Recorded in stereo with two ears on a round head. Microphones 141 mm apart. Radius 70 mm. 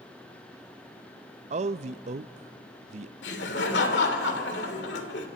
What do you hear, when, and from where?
1.5 s a man speaking: 45° right (ahead or behind), 0.5 m
3.2 s laughter: 80° left, 2.5 m